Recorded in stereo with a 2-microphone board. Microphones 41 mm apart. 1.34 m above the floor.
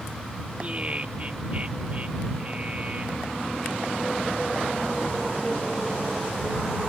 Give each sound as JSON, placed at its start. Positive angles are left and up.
{"t": 0.6, "sound": "laughter", "side_deg": -30}